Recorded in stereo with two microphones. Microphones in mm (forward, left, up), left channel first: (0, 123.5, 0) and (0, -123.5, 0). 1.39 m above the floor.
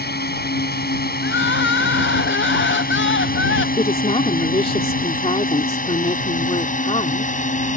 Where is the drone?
40° left (ahead or behind); by 7.8 s 30° left (ahead or behind).